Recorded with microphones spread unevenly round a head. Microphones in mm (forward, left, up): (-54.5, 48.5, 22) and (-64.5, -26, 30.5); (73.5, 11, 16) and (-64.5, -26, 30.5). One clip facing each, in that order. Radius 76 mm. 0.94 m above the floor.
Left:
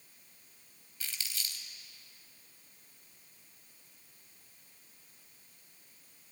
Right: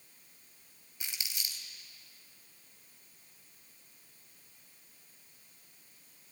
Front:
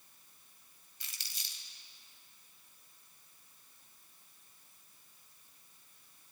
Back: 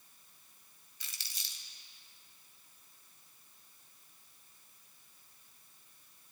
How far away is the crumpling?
About 3 m.